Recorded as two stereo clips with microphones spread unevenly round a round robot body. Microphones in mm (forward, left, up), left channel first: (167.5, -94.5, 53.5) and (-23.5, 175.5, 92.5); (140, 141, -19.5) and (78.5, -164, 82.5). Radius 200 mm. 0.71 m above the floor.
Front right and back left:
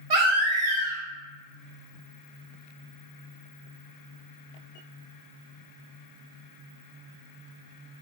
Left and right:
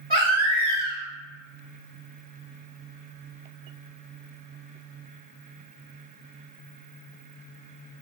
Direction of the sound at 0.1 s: 155° left.